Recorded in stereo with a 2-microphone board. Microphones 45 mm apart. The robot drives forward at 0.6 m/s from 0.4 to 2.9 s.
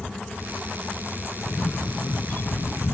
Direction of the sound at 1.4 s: 35° left (ahead or behind).